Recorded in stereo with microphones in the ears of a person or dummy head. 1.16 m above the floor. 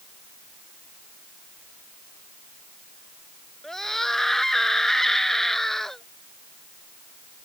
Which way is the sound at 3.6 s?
5° left (ahead or behind).